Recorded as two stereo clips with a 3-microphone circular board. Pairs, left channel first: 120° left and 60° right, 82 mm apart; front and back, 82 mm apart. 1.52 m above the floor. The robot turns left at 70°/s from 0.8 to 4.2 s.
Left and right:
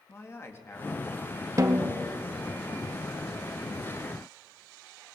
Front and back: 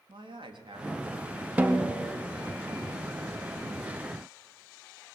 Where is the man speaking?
Straight behind, 3.5 m; by 1.5 s 130° left, 3.5 m.